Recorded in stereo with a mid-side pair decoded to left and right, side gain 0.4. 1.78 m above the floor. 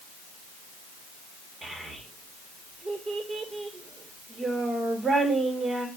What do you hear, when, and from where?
1.6 s a child speaking: 35° right, 1.9 m